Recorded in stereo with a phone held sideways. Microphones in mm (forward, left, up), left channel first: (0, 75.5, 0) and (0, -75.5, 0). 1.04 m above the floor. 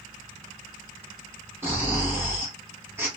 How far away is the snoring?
About 3 m.